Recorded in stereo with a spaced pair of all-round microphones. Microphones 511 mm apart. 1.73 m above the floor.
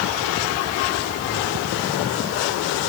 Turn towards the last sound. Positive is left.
No sound to turn to.